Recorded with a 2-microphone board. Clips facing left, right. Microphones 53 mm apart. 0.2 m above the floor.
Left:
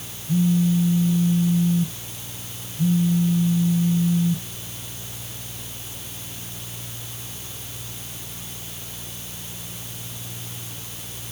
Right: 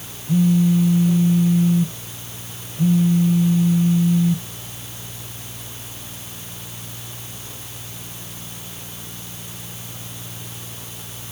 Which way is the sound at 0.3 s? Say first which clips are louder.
Right 3 dB; 65° right (ahead or behind).